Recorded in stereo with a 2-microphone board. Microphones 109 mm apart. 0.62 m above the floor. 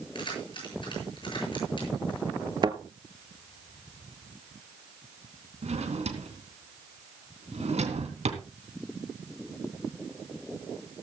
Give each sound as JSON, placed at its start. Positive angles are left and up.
{"t": 0.1, "sound": "keys jangling", "side_deg": 50, "distance_m": 8.0}
{"t": 2.6, "sound": "a thud", "side_deg": -40, "distance_m": 1.0}
{"t": 5.6, "sound": "a drawer", "side_deg": -85, "distance_m": 3.0}